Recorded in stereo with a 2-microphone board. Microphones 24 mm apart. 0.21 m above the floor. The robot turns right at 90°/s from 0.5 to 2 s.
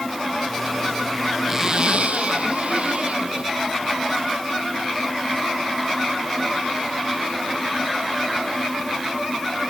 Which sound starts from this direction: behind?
A zipper, at 1.5 s.